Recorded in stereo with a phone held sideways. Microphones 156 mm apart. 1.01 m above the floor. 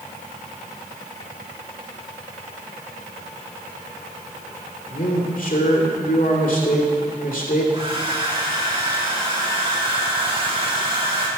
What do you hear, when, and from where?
4.9 s a man speaking: 65° left (ahead or behind), 2.5 m
7.7 s a hair dryer: 35° right (ahead or behind), 2.5 m